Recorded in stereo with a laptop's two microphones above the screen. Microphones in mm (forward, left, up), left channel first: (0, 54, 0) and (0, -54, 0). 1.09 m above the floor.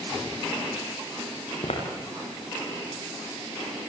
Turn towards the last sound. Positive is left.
turn(degrees=75)  # may be behind; listen again after turning